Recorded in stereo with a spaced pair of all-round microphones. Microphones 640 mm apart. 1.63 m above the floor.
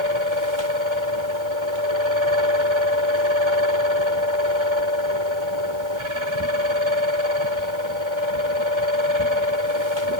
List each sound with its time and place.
0.0 s a fan: 45° right (ahead or behind)